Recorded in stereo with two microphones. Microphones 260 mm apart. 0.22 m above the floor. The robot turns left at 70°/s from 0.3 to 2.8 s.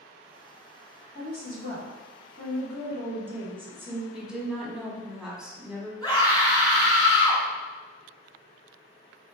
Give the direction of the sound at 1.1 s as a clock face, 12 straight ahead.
9 o'clock.